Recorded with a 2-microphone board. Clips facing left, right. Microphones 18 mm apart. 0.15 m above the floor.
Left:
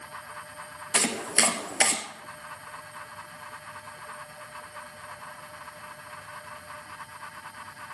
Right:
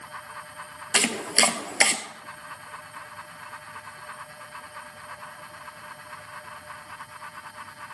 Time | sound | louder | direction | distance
0.9 | chopping | right 3 dB | 40° right (ahead or behind) | 1.1 m